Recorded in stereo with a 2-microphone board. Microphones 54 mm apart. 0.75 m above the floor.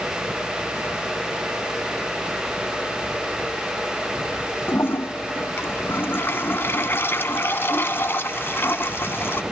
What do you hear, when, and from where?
4.7 s a toilet flushing: 45° left (ahead or behind), 1.0 m